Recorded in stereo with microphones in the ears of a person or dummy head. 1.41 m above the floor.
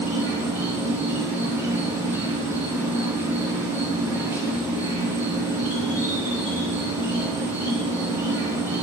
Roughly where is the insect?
Centre.